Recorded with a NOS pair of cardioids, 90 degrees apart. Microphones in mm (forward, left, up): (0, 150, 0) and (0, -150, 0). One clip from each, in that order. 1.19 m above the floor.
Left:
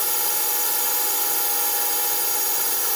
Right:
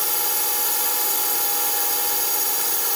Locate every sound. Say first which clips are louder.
0.0 s a drone: right 1 dB; 20° right